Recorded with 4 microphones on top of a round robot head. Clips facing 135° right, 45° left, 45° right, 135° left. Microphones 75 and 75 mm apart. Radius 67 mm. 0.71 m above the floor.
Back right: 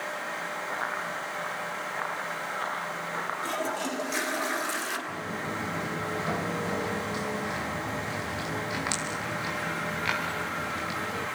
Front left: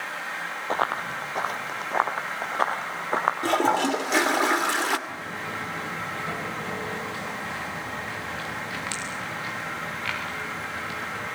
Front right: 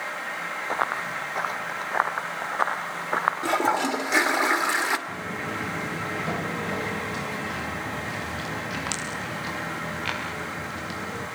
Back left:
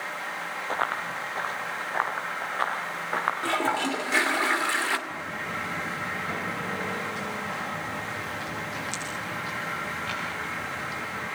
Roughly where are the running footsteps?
Ahead left.